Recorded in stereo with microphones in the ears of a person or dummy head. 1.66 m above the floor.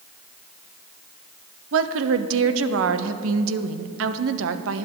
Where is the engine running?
I don't hear an engine running.